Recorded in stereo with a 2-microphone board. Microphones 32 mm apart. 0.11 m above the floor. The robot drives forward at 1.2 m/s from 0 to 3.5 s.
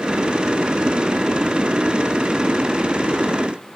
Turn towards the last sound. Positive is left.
No sound to turn to.